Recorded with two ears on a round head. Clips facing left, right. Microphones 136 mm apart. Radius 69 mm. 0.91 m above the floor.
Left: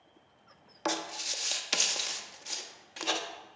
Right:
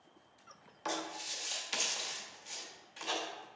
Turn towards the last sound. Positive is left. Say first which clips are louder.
# left 5 dB
turn(degrees=65)  # may be behind; listen again after turning